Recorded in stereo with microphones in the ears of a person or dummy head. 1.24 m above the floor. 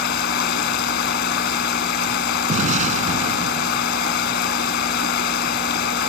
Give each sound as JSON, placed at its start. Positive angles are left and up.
{"t": 0.0, "sound": "running water", "side_deg": 65}
{"t": 2.5, "sound": "an explosion", "side_deg": -45}